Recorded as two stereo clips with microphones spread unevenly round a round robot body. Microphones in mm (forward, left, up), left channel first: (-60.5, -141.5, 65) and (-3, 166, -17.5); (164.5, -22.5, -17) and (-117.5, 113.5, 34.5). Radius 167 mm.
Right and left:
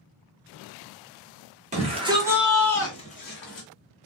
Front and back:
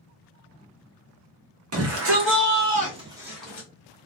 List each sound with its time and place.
1.7 s a shout: 120° left, 1.4 m; by 3.7 s 80° right, 1.1 m